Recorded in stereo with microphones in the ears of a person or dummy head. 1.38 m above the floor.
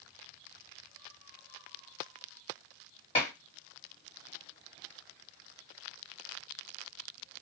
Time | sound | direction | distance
3.1 | dishes clattering | 30° left (ahead or behind) | 1.7 m